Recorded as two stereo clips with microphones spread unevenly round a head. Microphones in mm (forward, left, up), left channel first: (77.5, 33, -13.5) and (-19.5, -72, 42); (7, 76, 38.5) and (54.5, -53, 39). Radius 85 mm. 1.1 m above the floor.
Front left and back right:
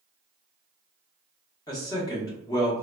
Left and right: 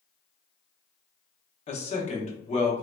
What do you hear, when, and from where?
1.7 s a man speaking: 85° left, 1.1 m